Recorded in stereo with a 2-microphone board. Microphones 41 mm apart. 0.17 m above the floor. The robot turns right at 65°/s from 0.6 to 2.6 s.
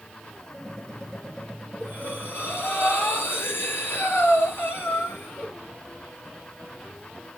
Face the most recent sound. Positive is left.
turn(degrees=95)